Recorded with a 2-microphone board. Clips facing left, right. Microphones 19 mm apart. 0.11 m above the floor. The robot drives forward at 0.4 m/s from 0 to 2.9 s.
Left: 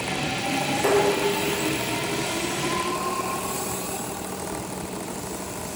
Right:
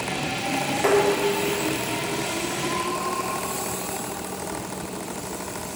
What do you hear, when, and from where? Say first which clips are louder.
0.8 s dishes clattering: right 1 dB; 40° right (ahead or behind), 6.5 m; by 2.2 s 45° right (ahead or behind), 6 m